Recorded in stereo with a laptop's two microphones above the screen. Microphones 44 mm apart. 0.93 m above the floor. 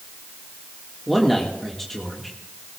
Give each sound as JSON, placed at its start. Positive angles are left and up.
{"t": 1.1, "sound": "a man speaking", "side_deg": 5, "distance_m": 1.7}